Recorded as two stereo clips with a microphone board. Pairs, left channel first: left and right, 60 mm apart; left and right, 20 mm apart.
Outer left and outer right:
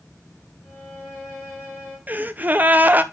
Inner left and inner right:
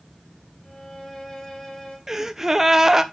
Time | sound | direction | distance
0.6 | a violin | 35° left (ahead or behind) | 4.5 m
2.1 | a gasp | 30° right (ahead or behind) | 0.7 m